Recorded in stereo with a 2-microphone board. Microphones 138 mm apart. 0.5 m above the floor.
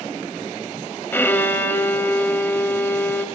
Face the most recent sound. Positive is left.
turn(degrees=15)  # may be behind; listen again after turning